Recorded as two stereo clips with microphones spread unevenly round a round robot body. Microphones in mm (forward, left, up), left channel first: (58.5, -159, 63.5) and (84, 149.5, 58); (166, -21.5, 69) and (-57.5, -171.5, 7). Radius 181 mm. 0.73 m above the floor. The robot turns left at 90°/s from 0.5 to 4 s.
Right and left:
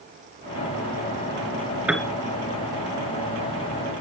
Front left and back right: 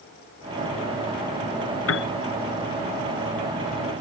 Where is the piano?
Straight ahead; by 2.1 s 20° right.